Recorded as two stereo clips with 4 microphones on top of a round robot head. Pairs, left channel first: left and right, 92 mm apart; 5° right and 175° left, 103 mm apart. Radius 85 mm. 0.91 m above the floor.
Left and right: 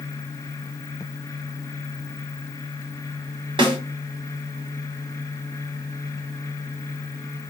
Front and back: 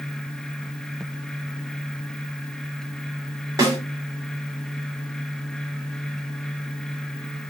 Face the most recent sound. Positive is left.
turn(degrees=-120)